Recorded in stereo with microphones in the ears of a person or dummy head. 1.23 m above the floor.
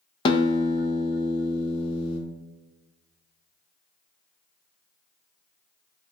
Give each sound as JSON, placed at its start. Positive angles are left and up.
{"t": 0.2, "sound": "a guitar", "side_deg": 25, "distance_m": 0.6}